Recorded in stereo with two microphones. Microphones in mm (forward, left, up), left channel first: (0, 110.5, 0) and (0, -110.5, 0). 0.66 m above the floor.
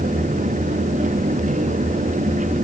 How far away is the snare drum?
I don't hear a snare drum.